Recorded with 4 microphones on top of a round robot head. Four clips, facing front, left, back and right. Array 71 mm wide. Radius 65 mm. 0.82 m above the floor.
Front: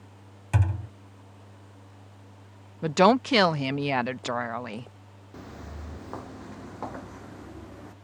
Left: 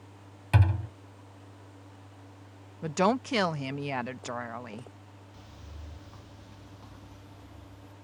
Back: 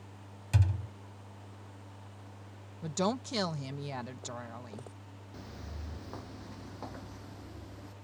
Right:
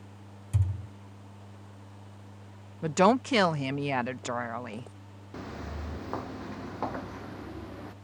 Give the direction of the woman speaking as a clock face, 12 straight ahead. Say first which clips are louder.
Right 3 dB, front 13 dB; 12 o'clock.